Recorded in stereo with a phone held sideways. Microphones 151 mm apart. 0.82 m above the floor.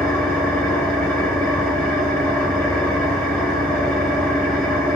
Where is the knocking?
I don't hear knocking.